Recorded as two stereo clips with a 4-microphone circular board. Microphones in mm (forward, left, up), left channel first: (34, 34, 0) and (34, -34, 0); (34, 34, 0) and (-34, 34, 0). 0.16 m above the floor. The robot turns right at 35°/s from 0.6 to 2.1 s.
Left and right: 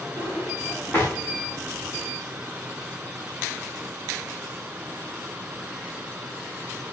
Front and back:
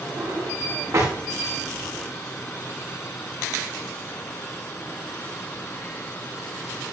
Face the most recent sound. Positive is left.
turn(degrees=-170)